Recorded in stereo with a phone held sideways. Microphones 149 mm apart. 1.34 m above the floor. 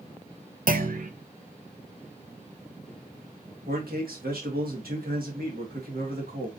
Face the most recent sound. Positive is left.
turn(degrees=-85)